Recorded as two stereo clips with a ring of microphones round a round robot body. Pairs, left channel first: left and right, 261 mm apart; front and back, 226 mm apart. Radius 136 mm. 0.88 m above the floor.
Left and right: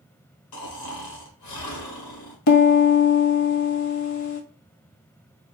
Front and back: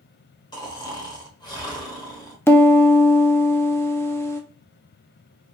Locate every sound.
0.5 s snoring: 70° left, 1.6 m
2.5 s a piano: 80° left, 1.0 m